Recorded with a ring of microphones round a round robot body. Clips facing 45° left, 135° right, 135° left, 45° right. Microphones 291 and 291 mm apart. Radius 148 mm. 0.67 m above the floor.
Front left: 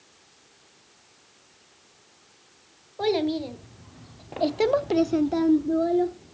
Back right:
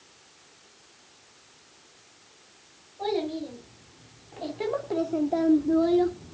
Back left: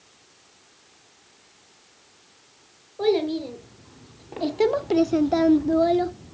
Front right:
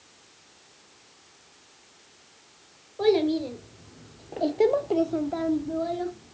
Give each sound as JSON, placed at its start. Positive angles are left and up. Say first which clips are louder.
{"t": 3.0, "sound": "a child speaking", "louder": "front left 5 dB, even", "azimuth_deg": 45, "distance_m": 1.6}